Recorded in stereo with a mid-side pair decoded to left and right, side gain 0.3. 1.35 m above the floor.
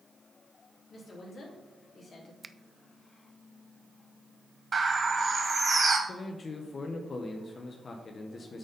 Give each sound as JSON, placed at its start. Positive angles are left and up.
{"t": 0.9, "sound": "a woman speaking", "azimuth_deg": 70, "distance_m": 3.0}
{"t": 2.4, "sound": "a finger snap", "azimuth_deg": -30, "distance_m": 0.5}
{"t": 4.7, "sound": "a bird", "azimuth_deg": -50, "distance_m": 2.5}
{"t": 6.1, "sound": "a man speaking", "azimuth_deg": 60, "distance_m": 0.9}